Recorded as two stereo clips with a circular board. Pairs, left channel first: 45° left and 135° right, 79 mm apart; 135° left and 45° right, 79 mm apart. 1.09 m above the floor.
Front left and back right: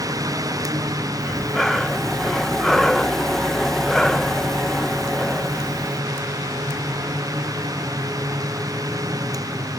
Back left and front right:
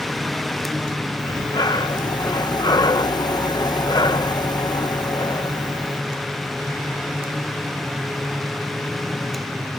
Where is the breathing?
130° left.